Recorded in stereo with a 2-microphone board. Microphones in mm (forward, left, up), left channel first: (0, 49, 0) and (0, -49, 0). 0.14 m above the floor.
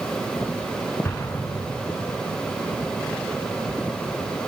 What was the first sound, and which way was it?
An explosion, 25° left (ahead or behind).